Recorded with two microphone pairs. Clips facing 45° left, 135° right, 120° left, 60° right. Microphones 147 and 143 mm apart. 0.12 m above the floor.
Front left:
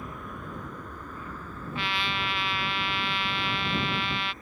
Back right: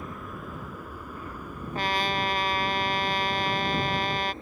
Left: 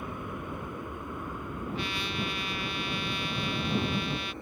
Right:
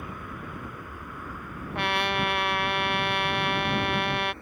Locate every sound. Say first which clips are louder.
0.0 s an aircraft: back right 1 dB, left 2 dB; 135° left; by 4.4 s straight behind
1.8 s a trumpet: back right 5 dB, right 11 dB; 85° right